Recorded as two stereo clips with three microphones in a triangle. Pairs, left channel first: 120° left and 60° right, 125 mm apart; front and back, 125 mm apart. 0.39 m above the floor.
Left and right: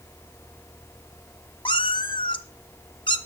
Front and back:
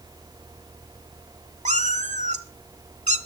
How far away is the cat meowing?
About 0.9 m.